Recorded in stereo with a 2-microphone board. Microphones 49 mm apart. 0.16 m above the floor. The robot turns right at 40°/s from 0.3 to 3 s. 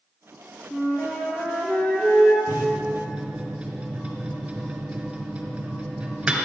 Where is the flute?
40° left, 2.5 m; by 2.4 s 105° left, 2.5 m.